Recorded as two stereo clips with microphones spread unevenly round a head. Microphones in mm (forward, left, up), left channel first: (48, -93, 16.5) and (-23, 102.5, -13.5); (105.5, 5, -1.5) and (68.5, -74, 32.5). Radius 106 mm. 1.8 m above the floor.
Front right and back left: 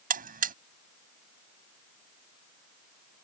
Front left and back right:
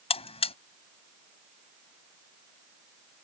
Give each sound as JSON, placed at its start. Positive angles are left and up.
{"t": 0.1, "sound": "a buzzer", "azimuth_deg": 55}